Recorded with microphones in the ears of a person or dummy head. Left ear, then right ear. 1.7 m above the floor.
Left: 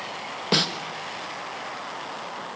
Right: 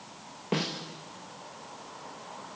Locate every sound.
0.5 s a snare drum: 65° left (ahead or behind), 1.6 m